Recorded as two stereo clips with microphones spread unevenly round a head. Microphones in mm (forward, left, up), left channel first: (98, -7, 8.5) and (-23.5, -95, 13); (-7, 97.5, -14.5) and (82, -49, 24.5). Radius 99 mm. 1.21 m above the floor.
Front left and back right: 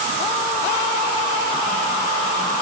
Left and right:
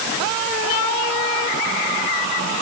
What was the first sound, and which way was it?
Only background noise.